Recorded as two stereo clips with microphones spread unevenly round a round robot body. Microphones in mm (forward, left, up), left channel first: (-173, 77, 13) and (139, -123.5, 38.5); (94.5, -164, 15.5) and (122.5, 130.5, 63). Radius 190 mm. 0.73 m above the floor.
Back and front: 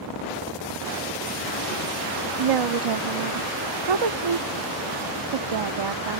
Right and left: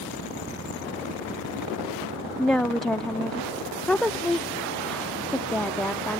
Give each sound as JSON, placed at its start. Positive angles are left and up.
{"t": 2.4, "sound": "a woman speaking", "azimuth_deg": -10}